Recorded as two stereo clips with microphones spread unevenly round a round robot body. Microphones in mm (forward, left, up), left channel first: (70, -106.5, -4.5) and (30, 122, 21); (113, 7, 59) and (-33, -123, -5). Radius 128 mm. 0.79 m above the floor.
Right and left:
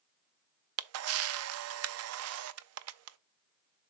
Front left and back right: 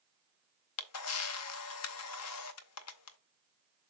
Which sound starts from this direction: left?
A camera shutter, at 0.8 s.